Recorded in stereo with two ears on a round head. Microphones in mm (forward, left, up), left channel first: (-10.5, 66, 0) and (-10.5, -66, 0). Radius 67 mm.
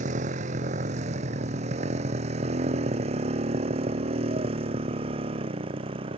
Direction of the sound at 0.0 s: 55° right (ahead or behind).